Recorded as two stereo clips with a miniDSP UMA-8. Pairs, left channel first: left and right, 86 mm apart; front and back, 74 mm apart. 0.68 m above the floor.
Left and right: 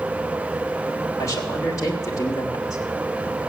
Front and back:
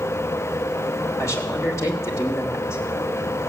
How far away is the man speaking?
About 2.5 m.